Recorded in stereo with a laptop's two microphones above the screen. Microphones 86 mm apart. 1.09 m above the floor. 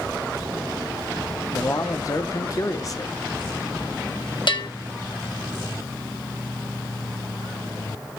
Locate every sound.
1.5 s a man speaking: 40° left (ahead or behind), 0.8 m
4.5 s a bell: 65° left (ahead or behind), 1.0 m